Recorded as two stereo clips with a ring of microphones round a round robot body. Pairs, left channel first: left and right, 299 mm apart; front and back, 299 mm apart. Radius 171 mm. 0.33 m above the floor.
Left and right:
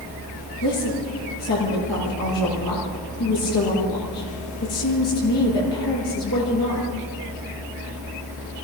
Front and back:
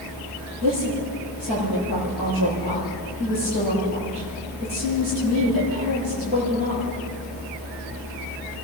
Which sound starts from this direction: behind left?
A woman speaking, at 0.6 s.